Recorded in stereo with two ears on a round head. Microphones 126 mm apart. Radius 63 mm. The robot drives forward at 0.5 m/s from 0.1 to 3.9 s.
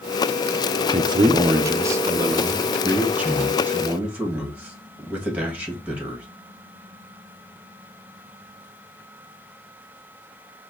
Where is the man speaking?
35° right (ahead or behind), 0.5 m; by 6.2 s 10° right (ahead or behind), 1.8 m.